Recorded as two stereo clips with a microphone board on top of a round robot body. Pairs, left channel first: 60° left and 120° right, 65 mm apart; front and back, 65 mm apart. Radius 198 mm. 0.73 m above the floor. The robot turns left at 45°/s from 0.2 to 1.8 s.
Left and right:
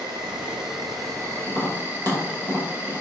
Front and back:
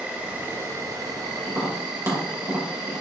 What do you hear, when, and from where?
0.0 s an insect: 110° right, 1.0 m; by 3.0 s straight behind, 1.0 m
1.5 s tapping: 130° right, 3 m; by 3.0 s 145° right, 3 m